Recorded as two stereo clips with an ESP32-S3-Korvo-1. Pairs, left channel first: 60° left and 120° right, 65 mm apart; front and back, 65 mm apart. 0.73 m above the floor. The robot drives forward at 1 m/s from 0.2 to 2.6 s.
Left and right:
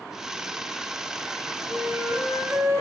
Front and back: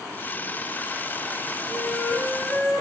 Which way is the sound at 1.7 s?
75° right.